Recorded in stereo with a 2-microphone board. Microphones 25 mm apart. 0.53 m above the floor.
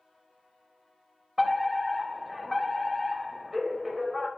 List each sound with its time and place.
1.4 s a fire alarm: 10° right (ahead or behind), 2.5 m